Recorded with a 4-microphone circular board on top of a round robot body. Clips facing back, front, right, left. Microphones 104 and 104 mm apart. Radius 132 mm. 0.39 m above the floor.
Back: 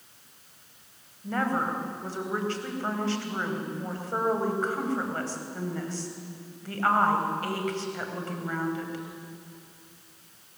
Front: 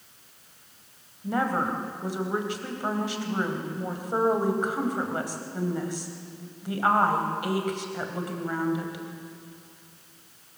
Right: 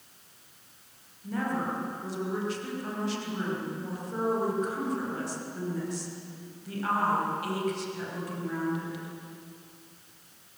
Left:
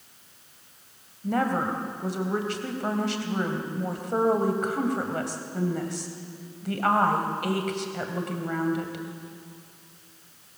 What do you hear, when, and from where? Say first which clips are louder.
1.2 s a woman speaking: front 2 dB, left 5 dB; 75° left, 3.5 m